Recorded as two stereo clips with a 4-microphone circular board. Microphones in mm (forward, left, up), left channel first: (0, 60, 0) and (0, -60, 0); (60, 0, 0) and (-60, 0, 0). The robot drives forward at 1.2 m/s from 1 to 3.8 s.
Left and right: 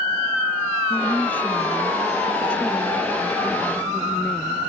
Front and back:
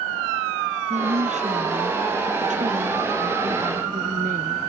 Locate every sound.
0.9 s a woman speaking: 165° left; by 4.6 s 170° left